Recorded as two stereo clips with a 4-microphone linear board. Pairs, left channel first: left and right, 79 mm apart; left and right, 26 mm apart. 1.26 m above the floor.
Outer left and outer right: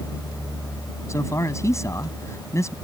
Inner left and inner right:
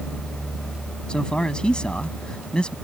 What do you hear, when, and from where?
1.1 s a man speaking: 40° left (ahead or behind)